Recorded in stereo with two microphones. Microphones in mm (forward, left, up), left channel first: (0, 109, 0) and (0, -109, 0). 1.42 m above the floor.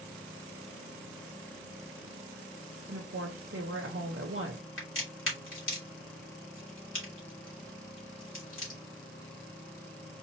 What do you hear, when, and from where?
2.9 s a woman speaking: 70° right (ahead or behind), 0.7 m
4.8 s a crack: 75° left (ahead or behind), 2.5 m